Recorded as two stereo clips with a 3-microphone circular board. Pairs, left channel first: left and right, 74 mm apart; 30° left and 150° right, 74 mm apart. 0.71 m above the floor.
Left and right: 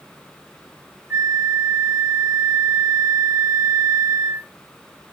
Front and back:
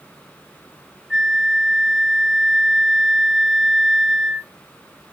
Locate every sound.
1.1 s a flute: 60° right, 0.9 m